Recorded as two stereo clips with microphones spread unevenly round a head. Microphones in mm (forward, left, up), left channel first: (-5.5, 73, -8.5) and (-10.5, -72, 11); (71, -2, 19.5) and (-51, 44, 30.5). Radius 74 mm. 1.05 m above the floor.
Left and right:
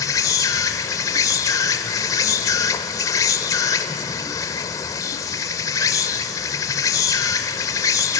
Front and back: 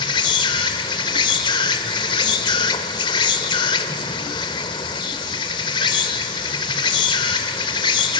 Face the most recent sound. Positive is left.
turn(degrees=20)